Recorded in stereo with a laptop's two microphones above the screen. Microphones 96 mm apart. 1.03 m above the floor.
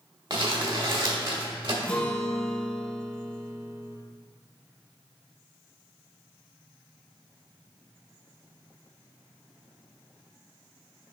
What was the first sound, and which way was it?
Crumpling, 55° right (ahead or behind).